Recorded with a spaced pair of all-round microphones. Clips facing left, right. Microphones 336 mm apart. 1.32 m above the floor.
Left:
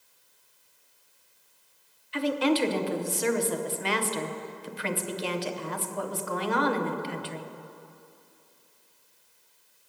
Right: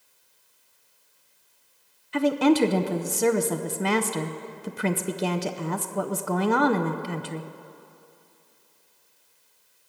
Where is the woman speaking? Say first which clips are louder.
Right 5 dB; 55° right (ahead or behind), 0.8 m.